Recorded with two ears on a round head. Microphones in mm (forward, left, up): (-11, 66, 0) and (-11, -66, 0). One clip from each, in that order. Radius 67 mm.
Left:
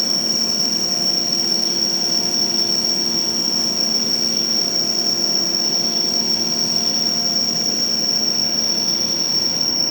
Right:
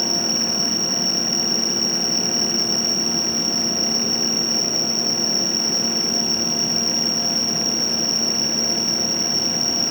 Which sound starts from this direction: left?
An insect, at 0.0 s.